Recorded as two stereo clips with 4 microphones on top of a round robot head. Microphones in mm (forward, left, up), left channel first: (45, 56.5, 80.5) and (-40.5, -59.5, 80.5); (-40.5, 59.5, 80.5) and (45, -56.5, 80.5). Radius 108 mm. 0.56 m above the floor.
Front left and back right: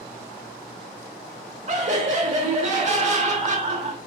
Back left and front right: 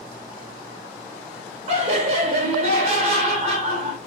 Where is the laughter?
95° right, 2 m.